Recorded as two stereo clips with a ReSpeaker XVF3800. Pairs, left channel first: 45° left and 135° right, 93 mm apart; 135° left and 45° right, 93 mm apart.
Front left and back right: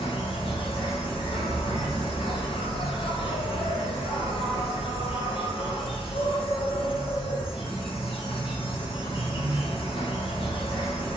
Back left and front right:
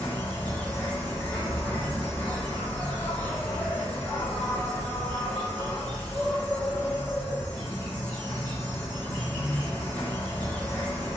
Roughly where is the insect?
Ahead left.